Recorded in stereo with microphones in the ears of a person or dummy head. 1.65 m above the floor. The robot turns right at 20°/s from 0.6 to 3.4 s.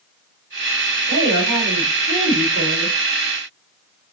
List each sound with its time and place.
1.1 s a woman speaking: 120° right, 3.5 m; by 3.0 s 80° right, 3.5 m